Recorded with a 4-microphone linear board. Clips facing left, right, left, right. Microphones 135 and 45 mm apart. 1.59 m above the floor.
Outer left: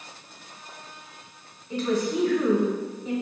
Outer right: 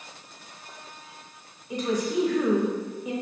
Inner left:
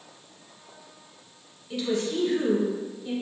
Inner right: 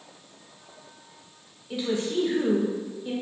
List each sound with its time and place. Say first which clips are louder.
1.7 s a woman speaking: outer left 1 dB, even; 15° right (ahead or behind), 0.8 m